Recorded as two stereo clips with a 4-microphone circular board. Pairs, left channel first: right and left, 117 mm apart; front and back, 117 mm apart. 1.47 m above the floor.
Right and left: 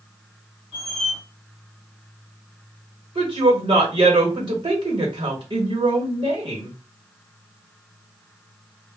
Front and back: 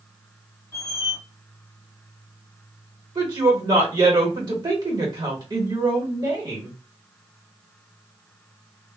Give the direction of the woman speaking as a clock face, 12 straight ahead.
8 o'clock.